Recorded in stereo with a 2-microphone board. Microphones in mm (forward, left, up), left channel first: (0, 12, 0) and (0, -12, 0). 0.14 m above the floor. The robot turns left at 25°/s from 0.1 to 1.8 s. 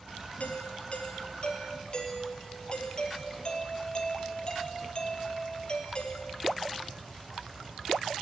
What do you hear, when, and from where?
0.4 s a doorbell: 80° left, 3.5 m; by 6.6 s 45° left, 3.5 m